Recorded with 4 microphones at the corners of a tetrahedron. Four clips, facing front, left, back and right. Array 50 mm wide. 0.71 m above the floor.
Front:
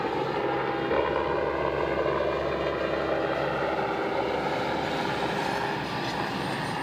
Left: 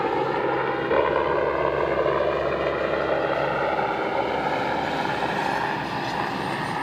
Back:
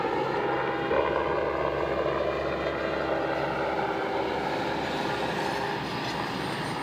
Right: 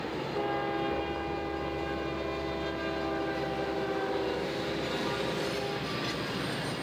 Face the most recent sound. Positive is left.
turn(degrees=95)